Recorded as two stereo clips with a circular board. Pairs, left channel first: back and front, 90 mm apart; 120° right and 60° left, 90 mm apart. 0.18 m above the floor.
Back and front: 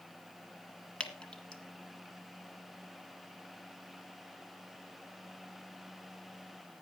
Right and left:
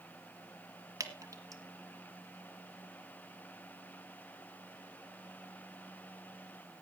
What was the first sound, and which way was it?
Dripping, 105° left.